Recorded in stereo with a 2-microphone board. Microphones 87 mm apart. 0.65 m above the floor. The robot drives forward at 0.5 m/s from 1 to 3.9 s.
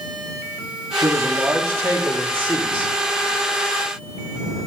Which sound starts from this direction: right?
A man speaking, at 1.0 s.